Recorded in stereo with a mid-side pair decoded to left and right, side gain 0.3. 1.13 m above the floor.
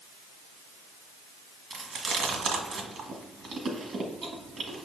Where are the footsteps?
I don't hear footsteps.